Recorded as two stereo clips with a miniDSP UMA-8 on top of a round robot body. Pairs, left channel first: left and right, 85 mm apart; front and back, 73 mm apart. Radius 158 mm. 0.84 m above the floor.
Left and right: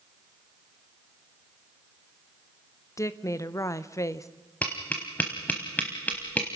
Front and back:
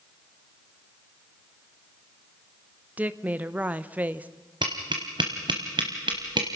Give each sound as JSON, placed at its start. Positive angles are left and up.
{"t": 3.0, "sound": "a woman speaking", "azimuth_deg": 120, "distance_m": 1.0}
{"t": 4.6, "sound": "tapping", "azimuth_deg": 160, "distance_m": 0.7}